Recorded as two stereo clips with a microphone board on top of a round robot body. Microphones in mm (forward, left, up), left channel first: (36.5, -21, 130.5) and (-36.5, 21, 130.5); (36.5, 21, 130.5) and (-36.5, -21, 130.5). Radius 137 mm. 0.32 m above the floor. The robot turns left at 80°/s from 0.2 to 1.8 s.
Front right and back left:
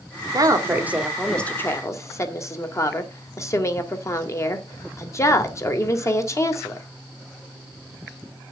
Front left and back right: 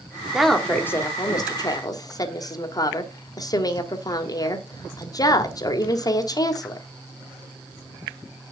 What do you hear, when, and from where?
0.3 s a woman speaking: 130° left, 2 m; by 6.9 s 10° left, 2 m